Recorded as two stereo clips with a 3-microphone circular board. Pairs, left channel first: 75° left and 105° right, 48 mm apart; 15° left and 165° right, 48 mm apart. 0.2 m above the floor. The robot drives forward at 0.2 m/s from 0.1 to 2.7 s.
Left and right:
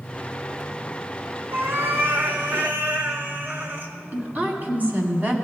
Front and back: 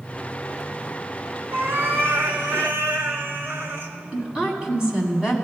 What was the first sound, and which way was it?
A cat meowing, 135° right.